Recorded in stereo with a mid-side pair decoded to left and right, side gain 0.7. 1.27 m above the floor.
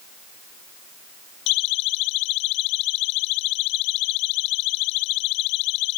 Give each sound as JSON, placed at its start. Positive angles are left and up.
{"t": 1.5, "sound": "a siren", "azimuth_deg": 65}